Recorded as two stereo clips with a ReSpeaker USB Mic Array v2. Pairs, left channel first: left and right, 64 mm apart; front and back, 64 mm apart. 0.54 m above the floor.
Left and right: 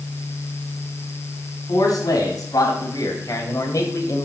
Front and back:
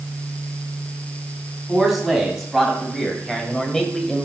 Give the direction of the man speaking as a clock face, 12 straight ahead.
9 o'clock.